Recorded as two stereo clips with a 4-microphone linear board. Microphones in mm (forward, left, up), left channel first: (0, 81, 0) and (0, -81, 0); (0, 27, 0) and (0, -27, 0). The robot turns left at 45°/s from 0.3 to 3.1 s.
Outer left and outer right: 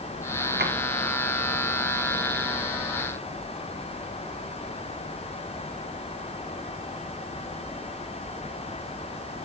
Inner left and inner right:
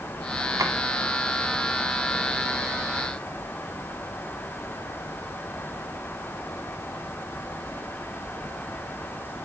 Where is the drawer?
80° right, 1.3 m.